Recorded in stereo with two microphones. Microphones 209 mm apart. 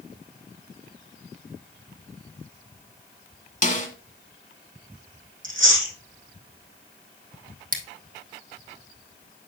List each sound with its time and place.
3.6 s a snare drum: 40° left (ahead or behind), 1.9 m
5.4 s chewing: 70° right (ahead or behind), 5.5 m
7.7 s scissors: 45° right (ahead or behind), 1.4 m